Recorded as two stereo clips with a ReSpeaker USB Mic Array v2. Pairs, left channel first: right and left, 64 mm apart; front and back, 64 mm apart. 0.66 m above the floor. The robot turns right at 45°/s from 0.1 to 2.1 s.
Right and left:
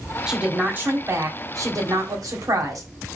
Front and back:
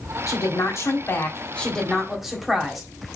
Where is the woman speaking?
10° left, 1.3 m; by 2.9 s 95° left, 1.3 m.